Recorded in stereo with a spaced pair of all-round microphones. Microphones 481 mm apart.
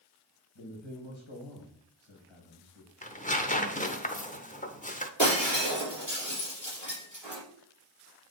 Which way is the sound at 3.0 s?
15° left (ahead or behind).